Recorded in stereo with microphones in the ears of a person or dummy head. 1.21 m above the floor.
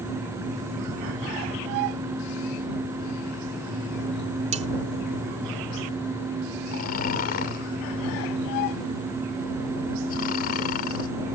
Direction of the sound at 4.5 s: 30° right (ahead or behind).